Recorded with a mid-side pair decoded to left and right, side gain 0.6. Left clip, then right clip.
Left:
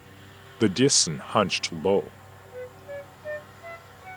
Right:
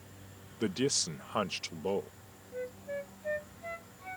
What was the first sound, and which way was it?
A man speaking, 50° left.